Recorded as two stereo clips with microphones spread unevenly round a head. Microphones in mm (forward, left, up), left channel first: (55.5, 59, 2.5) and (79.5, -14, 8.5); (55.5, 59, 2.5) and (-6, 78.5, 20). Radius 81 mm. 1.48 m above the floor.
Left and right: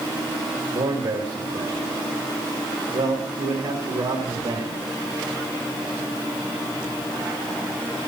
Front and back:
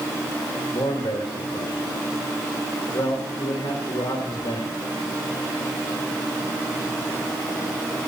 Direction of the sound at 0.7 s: 80° right.